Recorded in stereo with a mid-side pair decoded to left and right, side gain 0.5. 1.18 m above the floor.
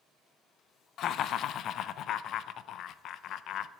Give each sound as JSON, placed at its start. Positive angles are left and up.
{"t": 1.0, "sound": "laughter", "azimuth_deg": 65, "distance_m": 0.5}